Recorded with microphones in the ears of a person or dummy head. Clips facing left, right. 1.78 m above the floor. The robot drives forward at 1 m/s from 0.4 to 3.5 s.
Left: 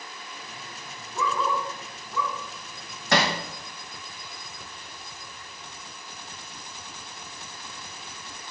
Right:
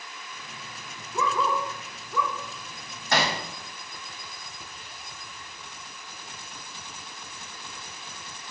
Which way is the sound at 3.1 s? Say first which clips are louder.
Left 2 dB; 55° left (ahead or behind).